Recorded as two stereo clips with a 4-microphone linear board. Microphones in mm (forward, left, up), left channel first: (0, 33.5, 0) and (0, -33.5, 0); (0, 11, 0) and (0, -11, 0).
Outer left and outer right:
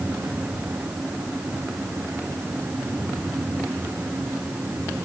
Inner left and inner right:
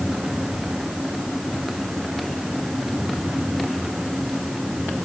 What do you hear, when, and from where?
Only background noise.